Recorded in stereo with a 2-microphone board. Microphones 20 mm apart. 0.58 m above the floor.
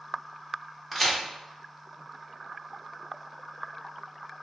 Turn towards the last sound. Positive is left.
turn(degrees=0)  # may be behind; listen again after turning